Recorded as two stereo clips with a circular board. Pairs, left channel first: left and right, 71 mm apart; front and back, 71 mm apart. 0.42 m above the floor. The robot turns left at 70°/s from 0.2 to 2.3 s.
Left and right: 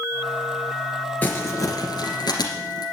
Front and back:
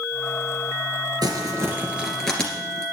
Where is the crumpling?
155° left, 2 m; by 2.9 s 80° left, 2 m.